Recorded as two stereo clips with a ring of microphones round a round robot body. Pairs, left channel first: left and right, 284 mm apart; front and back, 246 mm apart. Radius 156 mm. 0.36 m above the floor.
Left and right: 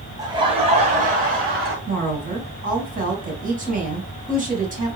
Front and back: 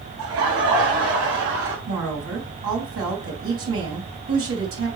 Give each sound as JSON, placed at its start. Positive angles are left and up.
{"t": 0.2, "sound": "laughter", "azimuth_deg": -165, "distance_m": 2.5}
{"t": 1.9, "sound": "a woman speaking", "azimuth_deg": -150, "distance_m": 3.5}